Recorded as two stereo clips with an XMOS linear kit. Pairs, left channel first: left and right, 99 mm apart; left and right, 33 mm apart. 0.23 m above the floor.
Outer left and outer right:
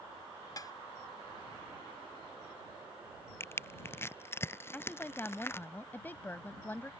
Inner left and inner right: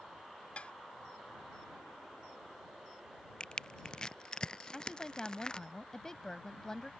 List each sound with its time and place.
0.6 s dishes clattering: 40° left (ahead or behind)
3.4 s crushing: 25° left (ahead or behind)
4.7 s a woman speaking: 20° left (ahead or behind)